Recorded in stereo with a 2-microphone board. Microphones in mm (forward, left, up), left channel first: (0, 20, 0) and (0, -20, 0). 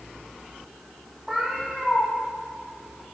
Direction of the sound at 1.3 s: 10° right (ahead or behind).